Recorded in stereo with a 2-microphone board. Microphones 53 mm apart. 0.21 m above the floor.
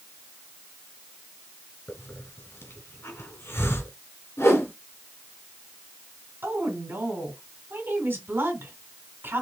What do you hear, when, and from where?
1.9 s a hiss: 50° left (ahead or behind), 2.5 m
4.4 s a whoosh: 60° left (ahead or behind), 2 m
6.4 s a woman speaking: 45° right (ahead or behind), 2 m